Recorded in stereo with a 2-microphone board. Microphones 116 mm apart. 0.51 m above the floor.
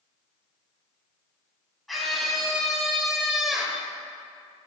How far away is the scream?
About 4.5 m.